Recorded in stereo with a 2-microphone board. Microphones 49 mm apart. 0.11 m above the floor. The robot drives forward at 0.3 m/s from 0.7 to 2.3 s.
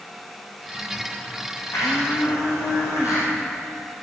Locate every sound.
1.7 s a blender: 75° left (ahead or behind), 5 m